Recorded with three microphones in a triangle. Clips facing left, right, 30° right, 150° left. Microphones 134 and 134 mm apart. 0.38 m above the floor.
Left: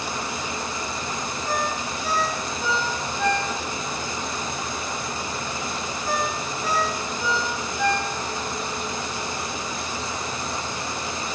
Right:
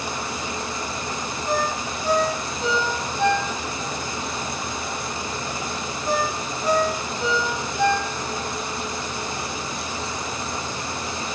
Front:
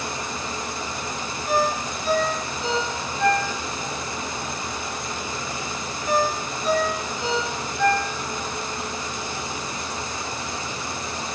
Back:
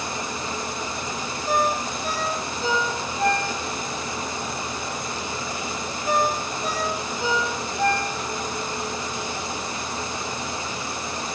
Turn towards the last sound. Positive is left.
turn(degrees=-160)